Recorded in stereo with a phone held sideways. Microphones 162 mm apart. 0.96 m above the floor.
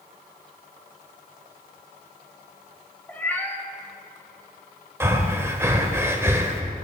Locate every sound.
3.1 s a cat meowing: 10° left (ahead or behind), 0.7 m
5.0 s breathing: 15° right (ahead or behind), 0.8 m